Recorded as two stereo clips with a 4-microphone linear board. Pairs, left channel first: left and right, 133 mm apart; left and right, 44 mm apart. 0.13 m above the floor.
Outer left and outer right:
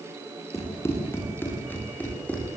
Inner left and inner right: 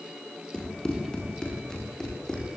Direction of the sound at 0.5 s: 20° left (ahead or behind).